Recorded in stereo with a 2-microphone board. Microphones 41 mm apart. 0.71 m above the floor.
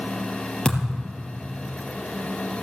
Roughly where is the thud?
Centre.